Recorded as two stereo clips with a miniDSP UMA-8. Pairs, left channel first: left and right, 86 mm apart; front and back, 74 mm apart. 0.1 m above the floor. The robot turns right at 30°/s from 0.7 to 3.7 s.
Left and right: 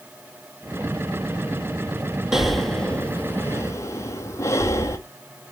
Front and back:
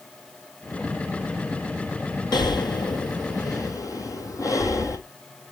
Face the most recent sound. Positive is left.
turn(degrees=35)